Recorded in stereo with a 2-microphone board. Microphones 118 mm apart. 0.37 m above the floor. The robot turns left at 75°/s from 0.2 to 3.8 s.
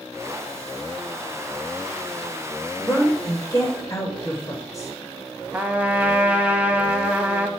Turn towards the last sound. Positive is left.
turn(degrees=-15)  # may be behind; listen again after turning